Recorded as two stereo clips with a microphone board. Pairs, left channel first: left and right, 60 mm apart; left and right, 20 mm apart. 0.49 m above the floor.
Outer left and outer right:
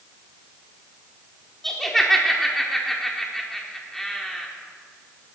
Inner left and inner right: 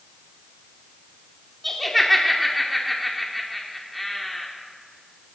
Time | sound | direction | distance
1.6 | laughter | 5° left (ahead or behind) | 1.4 m